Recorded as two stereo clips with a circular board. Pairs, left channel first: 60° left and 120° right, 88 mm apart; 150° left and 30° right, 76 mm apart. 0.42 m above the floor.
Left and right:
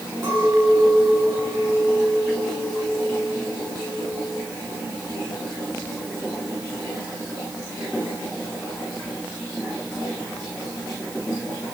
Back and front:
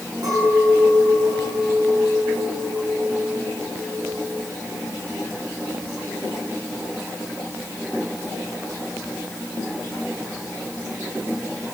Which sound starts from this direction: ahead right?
A clink, at 0.2 s.